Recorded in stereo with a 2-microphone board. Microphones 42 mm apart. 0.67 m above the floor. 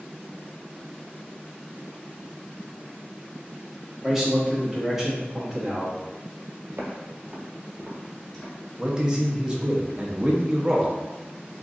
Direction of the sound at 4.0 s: 5° right (ahead or behind).